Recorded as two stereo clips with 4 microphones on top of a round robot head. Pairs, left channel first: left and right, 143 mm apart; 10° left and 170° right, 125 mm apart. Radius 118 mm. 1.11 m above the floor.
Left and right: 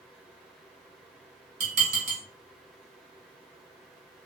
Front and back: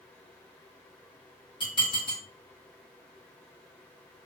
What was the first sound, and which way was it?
Dishes clattering, 55° right.